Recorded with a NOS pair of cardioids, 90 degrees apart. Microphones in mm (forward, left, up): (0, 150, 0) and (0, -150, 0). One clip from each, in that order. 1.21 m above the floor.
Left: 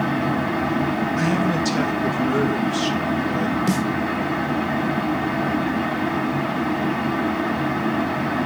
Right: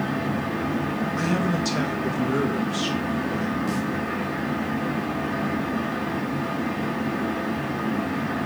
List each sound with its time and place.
0.0 s a fan: 30° left, 4 m
1.2 s a man speaking: 10° left, 1.9 m
3.7 s a snare drum: 70° left, 1.1 m